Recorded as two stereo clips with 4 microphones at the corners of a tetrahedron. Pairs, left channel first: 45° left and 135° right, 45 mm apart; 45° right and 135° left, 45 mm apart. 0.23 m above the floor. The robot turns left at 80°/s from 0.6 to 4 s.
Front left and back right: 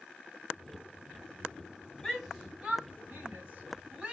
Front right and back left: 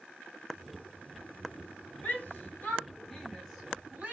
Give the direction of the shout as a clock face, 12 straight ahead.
1 o'clock.